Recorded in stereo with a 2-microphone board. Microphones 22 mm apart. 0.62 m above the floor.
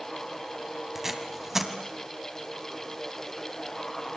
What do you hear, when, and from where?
0.9 s tape being pulled: 15° right (ahead or behind), 2.5 m